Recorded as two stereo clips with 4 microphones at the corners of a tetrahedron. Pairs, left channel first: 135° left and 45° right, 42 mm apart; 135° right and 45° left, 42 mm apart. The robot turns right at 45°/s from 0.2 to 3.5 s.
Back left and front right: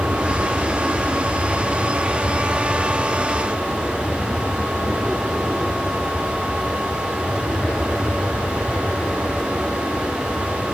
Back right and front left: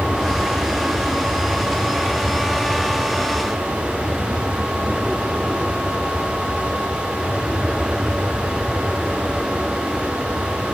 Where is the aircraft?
70° right; by 10.8 s 135° left.